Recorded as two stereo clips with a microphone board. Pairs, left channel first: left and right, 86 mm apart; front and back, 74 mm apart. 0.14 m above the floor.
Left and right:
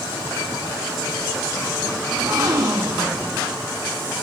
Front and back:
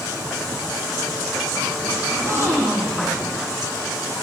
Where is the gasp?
130° right, 4.5 m.